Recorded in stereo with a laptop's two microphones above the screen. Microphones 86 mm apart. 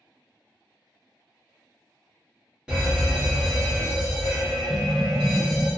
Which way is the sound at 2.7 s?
15° right (ahead or behind).